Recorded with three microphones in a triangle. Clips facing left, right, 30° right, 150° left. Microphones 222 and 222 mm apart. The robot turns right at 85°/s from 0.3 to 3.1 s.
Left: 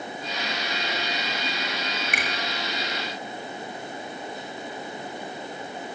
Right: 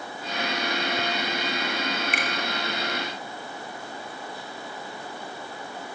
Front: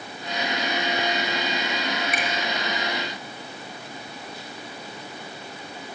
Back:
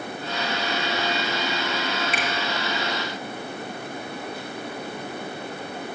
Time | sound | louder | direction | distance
2.1 | a finger snap | right 1 dB, back 1 dB | 95° left | 1.9 m